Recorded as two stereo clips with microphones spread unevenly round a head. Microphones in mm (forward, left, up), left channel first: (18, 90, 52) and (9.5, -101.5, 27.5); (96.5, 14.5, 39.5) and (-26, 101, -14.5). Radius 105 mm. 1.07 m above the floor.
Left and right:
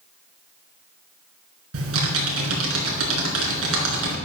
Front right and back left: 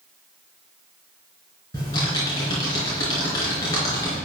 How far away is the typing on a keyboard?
About 3.5 m.